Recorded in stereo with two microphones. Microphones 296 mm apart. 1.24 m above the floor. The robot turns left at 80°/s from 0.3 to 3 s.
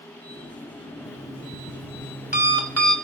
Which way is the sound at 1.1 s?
70° left.